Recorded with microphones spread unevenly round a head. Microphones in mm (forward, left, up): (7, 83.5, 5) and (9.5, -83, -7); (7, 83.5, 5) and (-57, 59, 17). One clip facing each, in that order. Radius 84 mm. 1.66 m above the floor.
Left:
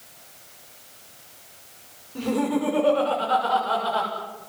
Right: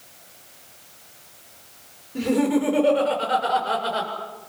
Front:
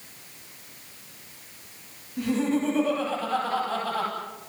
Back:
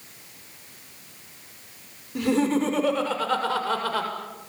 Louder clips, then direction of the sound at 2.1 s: Right 3 dB, back 3 dB; 160° right.